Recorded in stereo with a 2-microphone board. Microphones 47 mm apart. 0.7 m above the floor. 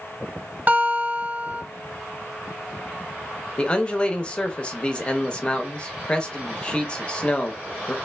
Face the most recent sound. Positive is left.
turn(degrees=25)  # may be behind; listen again after turning